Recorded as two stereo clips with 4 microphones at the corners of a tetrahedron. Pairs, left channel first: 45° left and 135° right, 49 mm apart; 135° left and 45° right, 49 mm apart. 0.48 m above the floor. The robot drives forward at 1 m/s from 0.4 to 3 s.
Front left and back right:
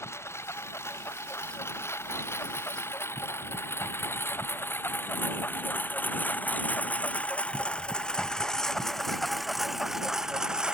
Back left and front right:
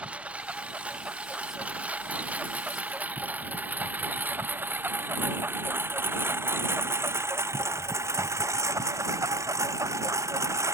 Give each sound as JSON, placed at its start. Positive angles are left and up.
{"t": 0.0, "sound": "a lawn mower", "azimuth_deg": 20}